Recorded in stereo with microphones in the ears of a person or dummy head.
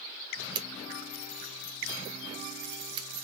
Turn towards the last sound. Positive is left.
turn(degrees=-35)  # may be behind; listen again after turning